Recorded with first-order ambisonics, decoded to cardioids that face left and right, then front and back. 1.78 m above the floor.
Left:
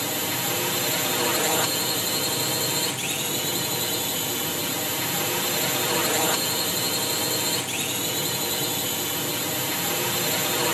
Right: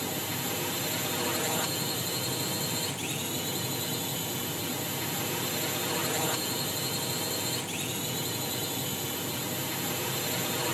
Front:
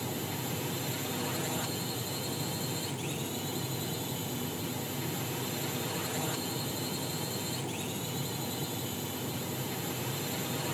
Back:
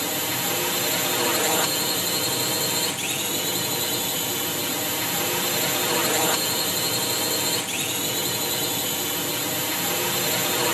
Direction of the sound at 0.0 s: 155° left.